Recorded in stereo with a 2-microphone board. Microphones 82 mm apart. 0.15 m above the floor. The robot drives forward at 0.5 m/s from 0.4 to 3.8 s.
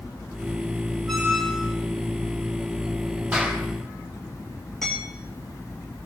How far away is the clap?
About 4.5 m.